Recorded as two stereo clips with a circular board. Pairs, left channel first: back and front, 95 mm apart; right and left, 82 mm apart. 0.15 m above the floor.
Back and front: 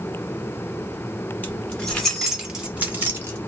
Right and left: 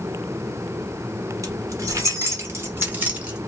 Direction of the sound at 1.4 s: 110° left.